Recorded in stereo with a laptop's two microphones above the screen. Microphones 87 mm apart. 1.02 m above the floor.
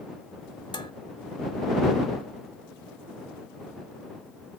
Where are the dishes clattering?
60° left (ahead or behind).